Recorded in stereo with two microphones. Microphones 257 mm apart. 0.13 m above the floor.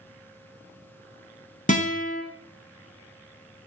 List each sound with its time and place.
1.7 s a guitar: 30° left (ahead or behind), 0.7 m